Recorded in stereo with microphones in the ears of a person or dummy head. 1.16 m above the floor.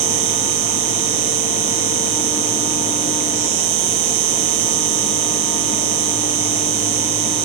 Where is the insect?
75° right (ahead or behind).